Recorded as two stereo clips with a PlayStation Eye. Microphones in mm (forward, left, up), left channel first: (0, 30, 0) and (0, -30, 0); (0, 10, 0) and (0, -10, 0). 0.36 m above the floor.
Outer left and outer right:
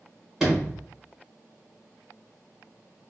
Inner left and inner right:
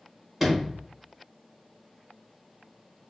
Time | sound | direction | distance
0.4 | a sliding door | 5° right (ahead or behind) | 1.7 m